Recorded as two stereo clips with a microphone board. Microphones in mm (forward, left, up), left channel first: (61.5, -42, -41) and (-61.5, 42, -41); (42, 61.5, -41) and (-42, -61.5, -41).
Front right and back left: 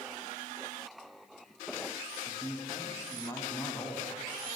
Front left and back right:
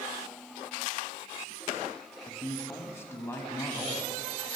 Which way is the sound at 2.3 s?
5° left.